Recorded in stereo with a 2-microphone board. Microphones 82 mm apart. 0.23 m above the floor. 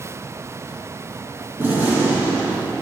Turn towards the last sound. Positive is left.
turn(degrees=-25)  # may be behind; listen again after turning